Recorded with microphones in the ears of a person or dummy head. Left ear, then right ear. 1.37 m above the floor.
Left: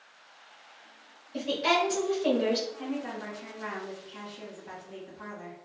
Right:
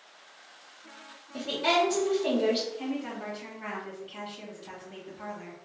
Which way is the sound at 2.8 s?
15° right (ahead or behind).